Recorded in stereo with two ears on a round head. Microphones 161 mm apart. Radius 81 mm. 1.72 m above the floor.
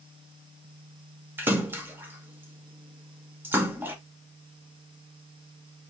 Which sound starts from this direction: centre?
A splash, at 1.4 s.